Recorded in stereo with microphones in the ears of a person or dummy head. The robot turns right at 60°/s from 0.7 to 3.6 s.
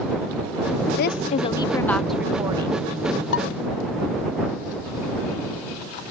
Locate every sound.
1.0 s a woman speaking: 110° left; by 2.9 s 135° right
3.3 s dishes clattering: 75° left (ahead or behind); by 3.5 s 85° left